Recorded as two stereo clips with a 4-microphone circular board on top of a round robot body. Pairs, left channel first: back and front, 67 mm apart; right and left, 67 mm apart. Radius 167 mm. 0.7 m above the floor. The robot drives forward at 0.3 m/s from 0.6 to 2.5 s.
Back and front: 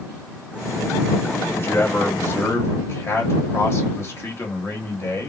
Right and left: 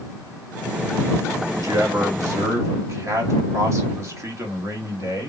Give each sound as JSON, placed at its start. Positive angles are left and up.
{"t": 1.6, "sound": "a man speaking", "azimuth_deg": 125, "distance_m": 1.5}